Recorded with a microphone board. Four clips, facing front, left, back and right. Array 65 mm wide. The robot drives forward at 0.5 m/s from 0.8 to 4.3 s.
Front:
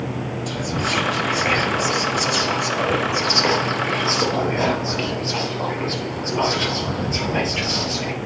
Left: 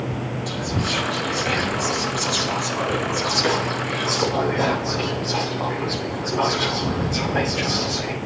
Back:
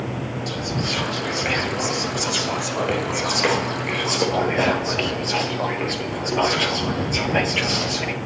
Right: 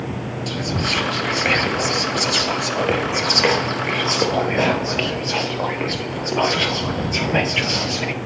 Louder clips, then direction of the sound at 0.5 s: Right 3 dB, front 4 dB; 75° right.